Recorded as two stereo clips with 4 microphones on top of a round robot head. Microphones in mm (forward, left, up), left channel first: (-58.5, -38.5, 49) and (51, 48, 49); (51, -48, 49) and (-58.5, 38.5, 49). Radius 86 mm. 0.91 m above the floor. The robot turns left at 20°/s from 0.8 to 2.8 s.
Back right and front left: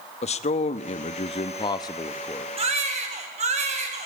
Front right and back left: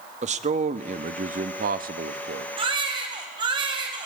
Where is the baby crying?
85° left, 3.5 m; by 4.1 s 80° left, 3.5 m.